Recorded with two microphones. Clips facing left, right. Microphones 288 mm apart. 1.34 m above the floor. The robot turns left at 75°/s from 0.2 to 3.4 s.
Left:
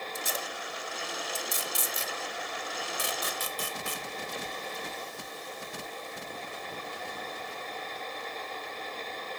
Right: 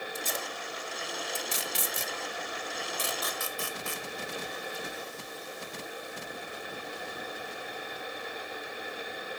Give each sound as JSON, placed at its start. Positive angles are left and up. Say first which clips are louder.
{"t": 0.1, "sound": "tape being pulled", "louder": "even", "side_deg": 15, "distance_m": 0.9}